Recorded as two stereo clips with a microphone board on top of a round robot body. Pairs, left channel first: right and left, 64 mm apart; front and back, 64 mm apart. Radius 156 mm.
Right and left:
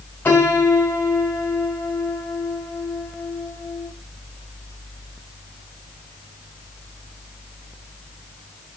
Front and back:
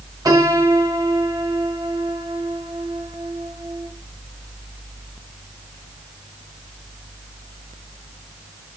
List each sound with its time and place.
0.2 s a piano: 155° right, 2 m